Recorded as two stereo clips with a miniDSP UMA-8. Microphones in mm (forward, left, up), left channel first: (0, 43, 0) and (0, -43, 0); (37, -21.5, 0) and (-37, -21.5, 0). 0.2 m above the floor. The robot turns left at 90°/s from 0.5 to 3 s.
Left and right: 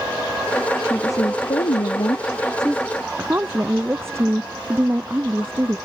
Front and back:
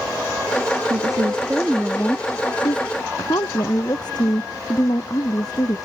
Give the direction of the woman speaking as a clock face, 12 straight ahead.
7 o'clock.